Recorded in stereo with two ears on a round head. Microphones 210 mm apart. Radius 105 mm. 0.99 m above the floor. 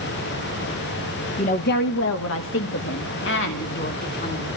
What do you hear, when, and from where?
1.4 s a woman speaking: 30° left (ahead or behind), 1.2 m; by 4.5 s 45° left (ahead or behind), 4 m